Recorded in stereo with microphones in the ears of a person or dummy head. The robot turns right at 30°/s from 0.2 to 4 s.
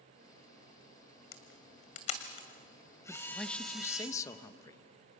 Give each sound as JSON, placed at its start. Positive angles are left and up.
{"t": 1.3, "sound": "a camera shutter", "side_deg": 60, "distance_m": 1.8}
{"t": 3.1, "sound": "a man speaking", "side_deg": -5, "distance_m": 0.9}